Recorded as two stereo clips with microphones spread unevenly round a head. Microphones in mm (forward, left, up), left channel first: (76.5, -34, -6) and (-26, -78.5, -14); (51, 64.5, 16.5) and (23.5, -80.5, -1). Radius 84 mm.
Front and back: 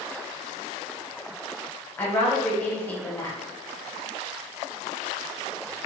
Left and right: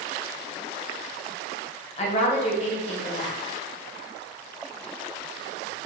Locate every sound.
2.0 s a woman speaking: 90° left, 0.7 m